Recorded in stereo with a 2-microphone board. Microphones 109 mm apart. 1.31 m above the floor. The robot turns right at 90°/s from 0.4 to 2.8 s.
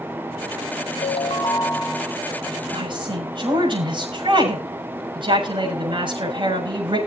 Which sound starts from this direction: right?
A woman speaking, at 2.7 s.